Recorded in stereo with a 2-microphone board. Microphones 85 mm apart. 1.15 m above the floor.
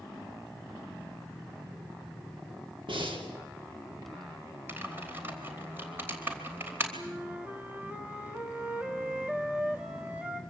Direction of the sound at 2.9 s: 75° right (ahead or behind).